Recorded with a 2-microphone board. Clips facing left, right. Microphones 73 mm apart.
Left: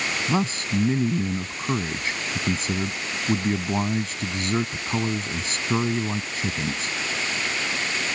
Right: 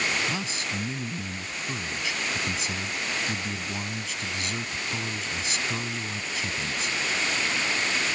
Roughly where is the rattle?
No rattle in this recording.